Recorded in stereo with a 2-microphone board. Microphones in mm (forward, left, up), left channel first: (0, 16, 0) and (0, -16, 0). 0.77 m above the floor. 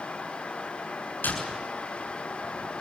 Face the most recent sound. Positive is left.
turn(degrees=75)  # may be behind; listen again after turning